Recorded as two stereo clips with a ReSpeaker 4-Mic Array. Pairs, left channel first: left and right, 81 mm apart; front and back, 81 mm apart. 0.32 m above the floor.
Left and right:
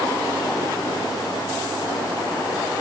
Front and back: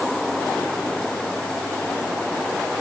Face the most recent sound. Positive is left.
No sound to turn to.